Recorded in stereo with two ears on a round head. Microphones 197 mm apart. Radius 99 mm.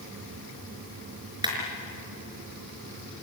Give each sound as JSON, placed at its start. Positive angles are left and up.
{"t": 1.4, "sound": "a clap", "side_deg": -20, "distance_m": 5.0}